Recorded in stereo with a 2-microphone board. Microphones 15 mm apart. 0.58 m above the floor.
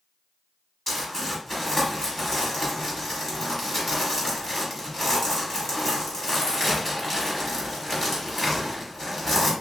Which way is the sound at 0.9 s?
15° left (ahead or behind).